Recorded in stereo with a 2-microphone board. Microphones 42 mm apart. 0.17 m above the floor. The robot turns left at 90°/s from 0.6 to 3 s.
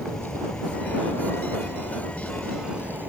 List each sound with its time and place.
0.0 s an insect: 165° left; by 3.1 s 50° right